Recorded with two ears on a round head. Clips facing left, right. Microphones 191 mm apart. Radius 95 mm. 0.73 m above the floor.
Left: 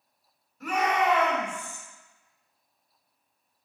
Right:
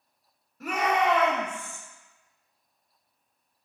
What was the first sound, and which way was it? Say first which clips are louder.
A shout: even; 45° right (ahead or behind).